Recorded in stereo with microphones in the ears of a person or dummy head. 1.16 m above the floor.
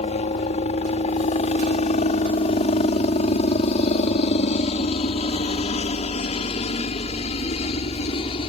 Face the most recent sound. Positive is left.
turn(degrees=30)  # may be behind; listen again after turning